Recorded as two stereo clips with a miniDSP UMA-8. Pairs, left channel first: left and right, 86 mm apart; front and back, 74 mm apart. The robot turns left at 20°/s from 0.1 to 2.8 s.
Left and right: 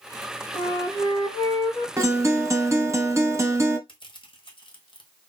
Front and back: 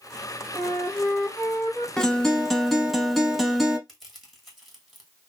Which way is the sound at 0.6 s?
80° left.